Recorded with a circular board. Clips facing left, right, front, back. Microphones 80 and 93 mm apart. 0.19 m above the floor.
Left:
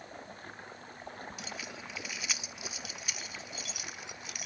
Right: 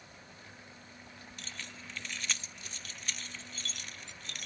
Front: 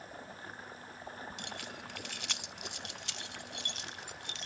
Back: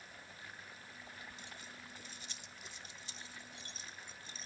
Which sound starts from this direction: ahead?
Keys jangling, at 1.4 s.